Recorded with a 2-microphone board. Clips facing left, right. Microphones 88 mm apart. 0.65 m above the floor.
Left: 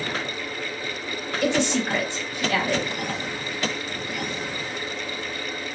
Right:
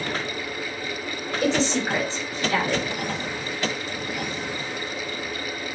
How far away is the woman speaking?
About 2 m.